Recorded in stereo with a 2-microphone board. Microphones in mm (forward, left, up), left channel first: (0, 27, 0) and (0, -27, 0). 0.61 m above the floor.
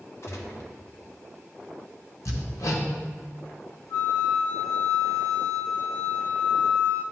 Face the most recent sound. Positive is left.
turn(degrees=60)  # may be behind; listen again after turning